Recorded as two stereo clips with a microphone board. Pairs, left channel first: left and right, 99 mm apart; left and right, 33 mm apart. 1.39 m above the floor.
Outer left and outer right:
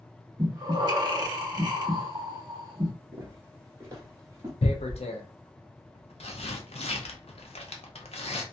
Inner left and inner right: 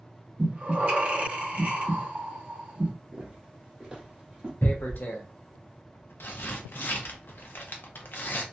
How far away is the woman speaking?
No woman speaking in this recording.